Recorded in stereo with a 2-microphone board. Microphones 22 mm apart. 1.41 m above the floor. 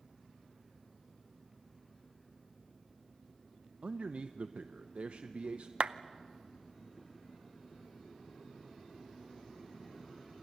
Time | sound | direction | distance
3.8 | a man speaking | 70° right (ahead or behind) | 0.7 m
5.8 | a clap | 55° right (ahead or behind) | 0.7 m